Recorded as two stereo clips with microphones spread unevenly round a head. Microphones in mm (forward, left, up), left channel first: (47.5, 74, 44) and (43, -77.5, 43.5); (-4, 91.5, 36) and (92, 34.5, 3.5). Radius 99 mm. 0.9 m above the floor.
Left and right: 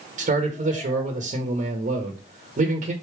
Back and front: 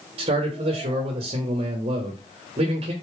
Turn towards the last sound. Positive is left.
turn(degrees=-55)